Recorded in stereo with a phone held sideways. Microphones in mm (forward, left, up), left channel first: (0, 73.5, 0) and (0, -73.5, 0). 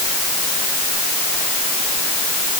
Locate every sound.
Only background noise.